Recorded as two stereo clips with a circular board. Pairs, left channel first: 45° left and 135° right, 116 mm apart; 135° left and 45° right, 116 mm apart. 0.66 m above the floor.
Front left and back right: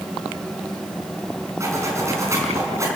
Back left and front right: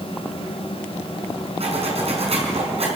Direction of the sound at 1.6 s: 70° right.